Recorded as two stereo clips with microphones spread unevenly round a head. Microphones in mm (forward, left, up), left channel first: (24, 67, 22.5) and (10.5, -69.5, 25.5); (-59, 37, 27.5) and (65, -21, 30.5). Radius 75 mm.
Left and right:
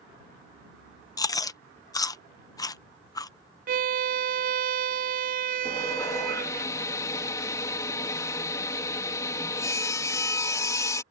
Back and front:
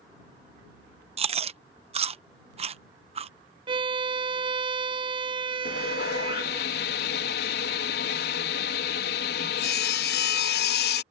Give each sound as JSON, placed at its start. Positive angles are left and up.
{"t": 1.2, "sound": "chewing", "azimuth_deg": 20}
{"t": 3.7, "sound": "a violin", "azimuth_deg": -80}
{"t": 5.7, "sound": "sawing", "azimuth_deg": 155}